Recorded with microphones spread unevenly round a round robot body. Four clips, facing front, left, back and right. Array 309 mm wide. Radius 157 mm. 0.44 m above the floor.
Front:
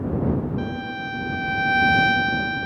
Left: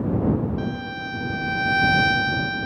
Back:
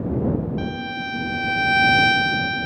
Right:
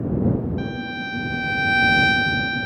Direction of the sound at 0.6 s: 140° right.